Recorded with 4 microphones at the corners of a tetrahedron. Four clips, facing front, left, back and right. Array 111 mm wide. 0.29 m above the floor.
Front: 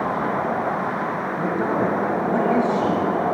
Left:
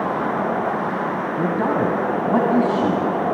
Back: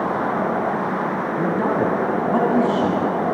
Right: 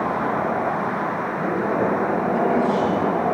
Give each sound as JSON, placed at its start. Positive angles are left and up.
{"t": 1.4, "sound": "a man speaking", "azimuth_deg": 120, "distance_m": 2.5}